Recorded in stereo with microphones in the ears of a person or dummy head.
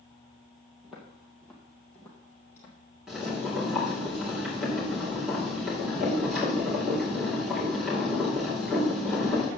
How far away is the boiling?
About 4 m.